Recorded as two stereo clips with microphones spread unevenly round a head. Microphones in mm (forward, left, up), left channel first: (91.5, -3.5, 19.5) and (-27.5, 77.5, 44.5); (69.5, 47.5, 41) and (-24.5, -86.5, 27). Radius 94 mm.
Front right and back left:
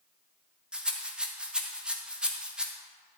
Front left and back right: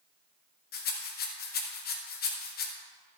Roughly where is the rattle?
Ahead left.